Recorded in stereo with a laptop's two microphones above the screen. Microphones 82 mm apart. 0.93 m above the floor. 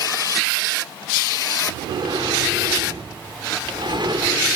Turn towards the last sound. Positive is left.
turn(degrees=-70)  # may be behind; listen again after turning